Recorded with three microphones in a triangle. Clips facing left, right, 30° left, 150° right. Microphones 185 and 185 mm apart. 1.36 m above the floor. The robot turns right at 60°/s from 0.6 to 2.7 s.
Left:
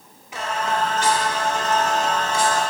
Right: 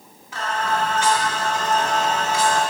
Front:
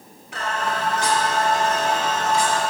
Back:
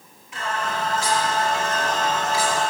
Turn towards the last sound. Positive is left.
turn(degrees=145)